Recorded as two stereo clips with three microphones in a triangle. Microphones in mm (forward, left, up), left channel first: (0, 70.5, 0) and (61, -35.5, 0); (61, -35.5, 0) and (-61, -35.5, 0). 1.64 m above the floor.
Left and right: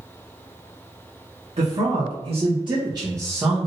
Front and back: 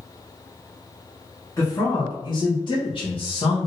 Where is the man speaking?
60° right, 1.2 m; by 3.7 s 20° left, 0.9 m.